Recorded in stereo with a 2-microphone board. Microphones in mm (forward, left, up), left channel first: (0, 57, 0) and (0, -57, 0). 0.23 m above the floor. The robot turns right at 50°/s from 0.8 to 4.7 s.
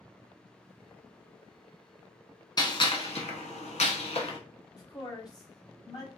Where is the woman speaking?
35° left (ahead or behind), 1.1 m.